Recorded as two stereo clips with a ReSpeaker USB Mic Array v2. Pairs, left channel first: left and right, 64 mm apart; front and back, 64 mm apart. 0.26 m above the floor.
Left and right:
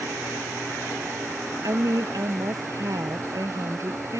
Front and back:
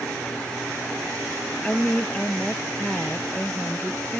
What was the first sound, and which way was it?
A woman speaking, 75° right.